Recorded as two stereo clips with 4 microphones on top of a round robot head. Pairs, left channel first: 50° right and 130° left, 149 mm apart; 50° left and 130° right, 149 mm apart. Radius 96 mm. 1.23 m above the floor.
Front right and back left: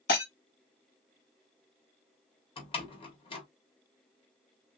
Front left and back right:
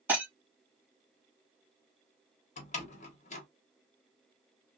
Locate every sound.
0.1 s breaking glass: 50° right, 2 m
2.6 s a door slam: 5° left, 1.3 m